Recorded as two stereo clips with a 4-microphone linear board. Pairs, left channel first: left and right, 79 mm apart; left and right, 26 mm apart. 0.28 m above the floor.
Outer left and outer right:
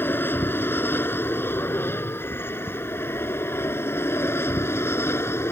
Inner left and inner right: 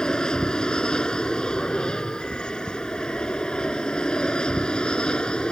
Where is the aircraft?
25° left (ahead or behind); by 5.5 s 30° left (ahead or behind).